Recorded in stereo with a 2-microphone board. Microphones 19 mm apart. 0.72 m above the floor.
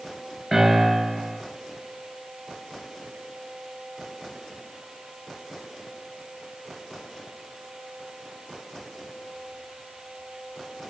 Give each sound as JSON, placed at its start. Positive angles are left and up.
{"t": 0.5, "sound": "a piano", "side_deg": 0, "distance_m": 5.0}